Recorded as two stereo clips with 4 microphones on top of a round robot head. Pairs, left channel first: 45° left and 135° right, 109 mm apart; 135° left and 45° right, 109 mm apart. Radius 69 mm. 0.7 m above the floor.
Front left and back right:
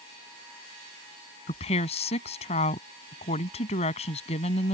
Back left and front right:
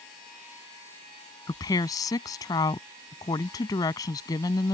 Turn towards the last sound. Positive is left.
turn(degrees=75)